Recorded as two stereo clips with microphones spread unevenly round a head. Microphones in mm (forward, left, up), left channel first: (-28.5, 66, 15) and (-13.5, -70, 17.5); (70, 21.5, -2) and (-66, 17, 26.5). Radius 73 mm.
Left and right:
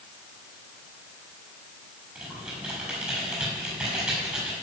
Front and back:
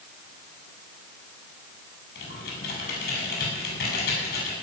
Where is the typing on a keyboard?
Straight ahead, 7 m.